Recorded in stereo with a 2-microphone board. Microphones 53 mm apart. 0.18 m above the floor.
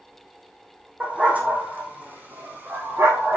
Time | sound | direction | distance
1.0 | a dog barking | 25° right (ahead or behind) | 4 m